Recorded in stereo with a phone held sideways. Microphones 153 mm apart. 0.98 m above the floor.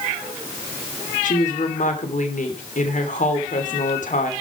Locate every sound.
1.2 s a woman speaking: 55° left (ahead or behind), 3 m